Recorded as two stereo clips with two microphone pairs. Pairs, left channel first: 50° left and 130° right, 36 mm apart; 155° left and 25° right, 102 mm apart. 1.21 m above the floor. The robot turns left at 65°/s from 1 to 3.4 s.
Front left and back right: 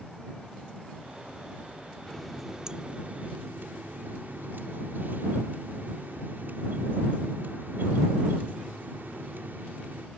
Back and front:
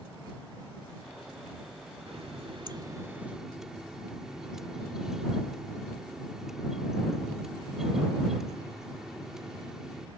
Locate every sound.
2.1 s a running tap: 25° right; by 10.1 s 110° right